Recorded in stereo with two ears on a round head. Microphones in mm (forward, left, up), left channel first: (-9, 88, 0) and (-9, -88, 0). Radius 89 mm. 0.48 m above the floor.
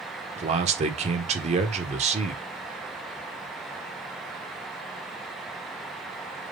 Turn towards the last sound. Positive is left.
turn(degrees=-35)  # may be behind; listen again after turning